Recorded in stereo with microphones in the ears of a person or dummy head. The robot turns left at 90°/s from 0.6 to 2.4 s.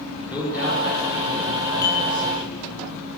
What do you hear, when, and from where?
0.3 s a man speaking: 10° right, 3.5 m; by 2.6 s 170° right, 3.5 m
1.8 s dishes clattering: 15° left (ahead or behind), 3.5 m; by 2.1 s 10° right (ahead or behind), 3.5 m